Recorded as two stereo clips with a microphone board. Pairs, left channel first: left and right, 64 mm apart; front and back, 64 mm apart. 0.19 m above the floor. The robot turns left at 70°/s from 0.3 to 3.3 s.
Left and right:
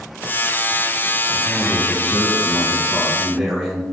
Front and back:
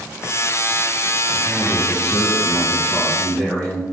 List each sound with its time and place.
1.3 s a man speaking: 130° left, 1.4 m; by 3.8 s 10° right, 1.4 m